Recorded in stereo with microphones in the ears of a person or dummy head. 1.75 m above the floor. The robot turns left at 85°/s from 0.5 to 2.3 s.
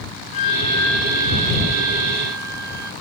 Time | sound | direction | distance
0.3 | a flute | 45° left | ?